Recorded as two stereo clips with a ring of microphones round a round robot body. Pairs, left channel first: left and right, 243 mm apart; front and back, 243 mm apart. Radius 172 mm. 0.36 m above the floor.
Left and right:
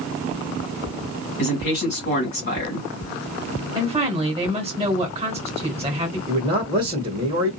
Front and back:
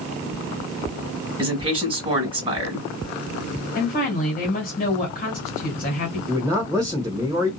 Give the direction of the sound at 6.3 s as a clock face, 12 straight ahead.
4 o'clock.